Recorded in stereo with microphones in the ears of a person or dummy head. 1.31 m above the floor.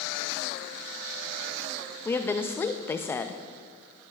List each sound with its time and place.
2.0 s a woman speaking: 10° left (ahead or behind), 0.5 m